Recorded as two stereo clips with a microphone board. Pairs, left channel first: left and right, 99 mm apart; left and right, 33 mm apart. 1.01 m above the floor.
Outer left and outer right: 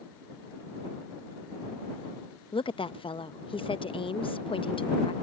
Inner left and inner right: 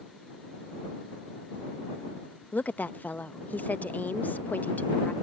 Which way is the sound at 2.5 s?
65° left (ahead or behind).